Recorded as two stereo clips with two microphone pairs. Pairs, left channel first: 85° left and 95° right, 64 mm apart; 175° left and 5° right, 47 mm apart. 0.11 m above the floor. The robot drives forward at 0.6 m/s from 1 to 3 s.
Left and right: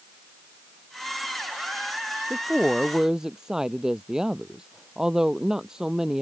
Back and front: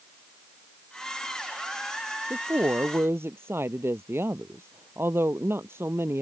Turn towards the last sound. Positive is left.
turn(degrees=-15)